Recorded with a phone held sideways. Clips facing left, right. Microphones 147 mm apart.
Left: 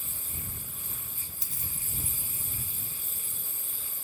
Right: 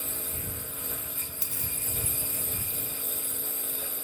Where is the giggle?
No giggle in this recording.